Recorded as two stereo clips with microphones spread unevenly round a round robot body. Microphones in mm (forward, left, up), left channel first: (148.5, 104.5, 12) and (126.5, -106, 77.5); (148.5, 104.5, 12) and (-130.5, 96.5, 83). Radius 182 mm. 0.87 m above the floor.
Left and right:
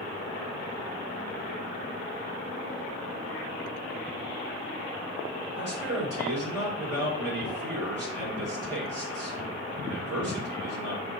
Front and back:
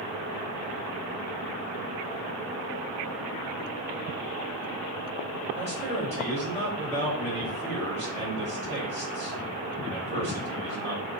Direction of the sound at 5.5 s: 105° right.